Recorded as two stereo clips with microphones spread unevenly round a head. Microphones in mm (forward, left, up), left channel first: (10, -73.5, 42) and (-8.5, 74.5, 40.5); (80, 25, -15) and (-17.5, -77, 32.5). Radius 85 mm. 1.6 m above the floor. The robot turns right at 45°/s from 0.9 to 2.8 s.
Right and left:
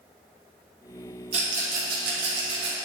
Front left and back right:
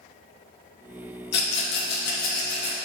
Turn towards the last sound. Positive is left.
turn(degrees=115)